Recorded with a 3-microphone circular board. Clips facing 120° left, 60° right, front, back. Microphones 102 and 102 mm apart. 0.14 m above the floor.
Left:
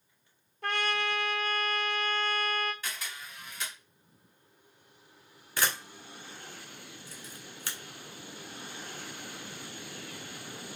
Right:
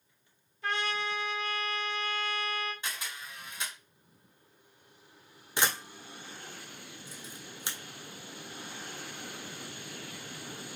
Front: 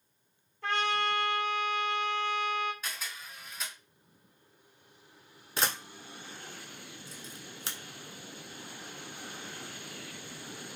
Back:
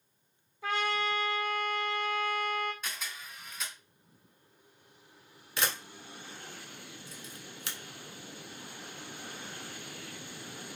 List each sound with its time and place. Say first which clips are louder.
0.6 s a trumpet: left 2 dB, front 1 dB; 100° left, 0.7 m
2.8 s a camera shutter: right 1 dB, even; 85° right, 1.4 m
5.6 s a camera shutter: right 1 dB, front 1 dB; 10° right, 0.7 m